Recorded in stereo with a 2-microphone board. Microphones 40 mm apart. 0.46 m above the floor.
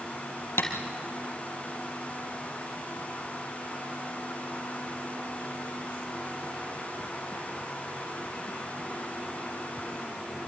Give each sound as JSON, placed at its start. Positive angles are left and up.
{"t": 0.6, "sound": "tapping", "side_deg": 85, "distance_m": 2.5}